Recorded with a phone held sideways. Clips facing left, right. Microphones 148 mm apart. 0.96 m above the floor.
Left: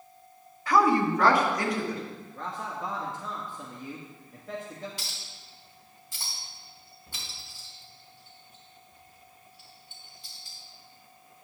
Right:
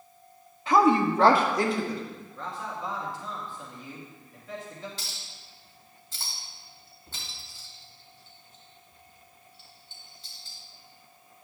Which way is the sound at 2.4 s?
45° left (ahead or behind).